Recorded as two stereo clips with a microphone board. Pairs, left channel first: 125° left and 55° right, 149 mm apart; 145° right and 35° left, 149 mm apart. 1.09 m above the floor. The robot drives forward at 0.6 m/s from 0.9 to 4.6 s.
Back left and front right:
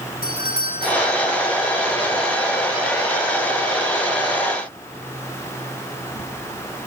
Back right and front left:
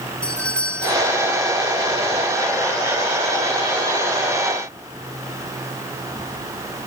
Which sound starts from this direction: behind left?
A doorbell, at 0.2 s.